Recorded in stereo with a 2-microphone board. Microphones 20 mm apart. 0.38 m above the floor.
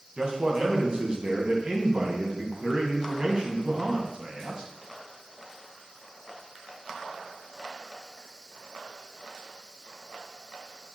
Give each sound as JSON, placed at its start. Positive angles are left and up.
{"t": 0.2, "sound": "a man speaking", "side_deg": -40, "distance_m": 2.5}